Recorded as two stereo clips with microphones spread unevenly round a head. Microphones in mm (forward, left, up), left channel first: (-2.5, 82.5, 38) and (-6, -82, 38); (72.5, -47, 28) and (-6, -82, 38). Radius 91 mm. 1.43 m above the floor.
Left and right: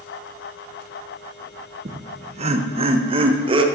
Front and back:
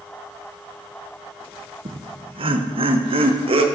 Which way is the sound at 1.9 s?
140° right.